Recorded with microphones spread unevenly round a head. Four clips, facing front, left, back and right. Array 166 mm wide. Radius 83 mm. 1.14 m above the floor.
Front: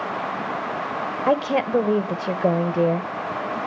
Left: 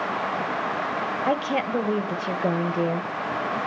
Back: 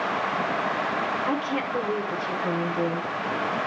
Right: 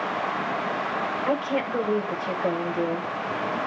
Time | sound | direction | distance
1.3 | a woman speaking | 15° left | 0.9 m